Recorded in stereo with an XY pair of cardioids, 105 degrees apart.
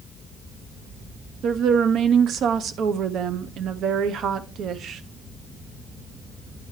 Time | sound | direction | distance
1.4 | a woman speaking | 65° right | 0.8 m